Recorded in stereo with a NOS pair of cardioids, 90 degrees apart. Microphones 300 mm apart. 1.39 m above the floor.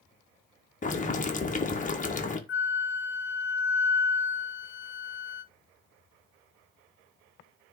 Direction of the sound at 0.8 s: 25° left.